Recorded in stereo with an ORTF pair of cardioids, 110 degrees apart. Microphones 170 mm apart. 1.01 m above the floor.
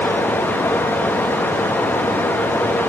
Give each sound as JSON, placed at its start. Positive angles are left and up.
{"t": 0.0, "sound": "running water", "azimuth_deg": 10, "distance_m": 1.0}